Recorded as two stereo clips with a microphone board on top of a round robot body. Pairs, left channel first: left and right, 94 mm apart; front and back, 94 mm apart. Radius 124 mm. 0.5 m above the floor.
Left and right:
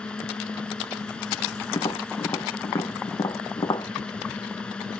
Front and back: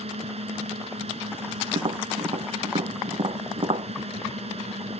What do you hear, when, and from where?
0.0 s a drone: 175° left
1.7 s tapping: 145° left